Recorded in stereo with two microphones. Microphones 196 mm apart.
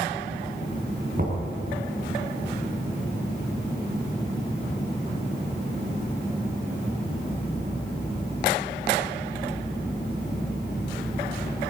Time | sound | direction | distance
1.2 | knocking | 45° right (ahead or behind) | 4.5 m